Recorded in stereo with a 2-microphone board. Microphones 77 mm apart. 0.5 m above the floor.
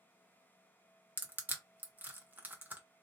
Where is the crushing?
25° right (ahead or behind), 0.7 m.